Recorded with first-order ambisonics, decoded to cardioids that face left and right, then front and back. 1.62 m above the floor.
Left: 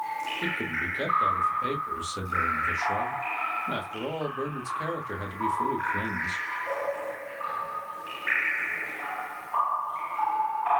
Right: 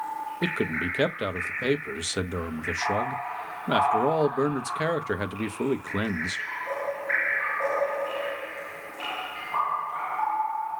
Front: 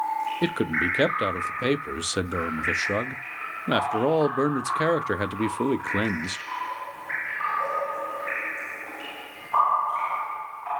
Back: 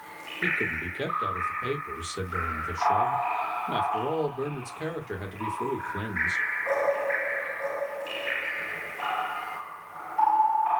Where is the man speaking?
30° right, 0.7 m.